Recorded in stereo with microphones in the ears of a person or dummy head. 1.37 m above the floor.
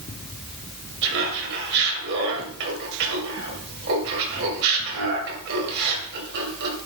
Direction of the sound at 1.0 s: 70° right (ahead or behind).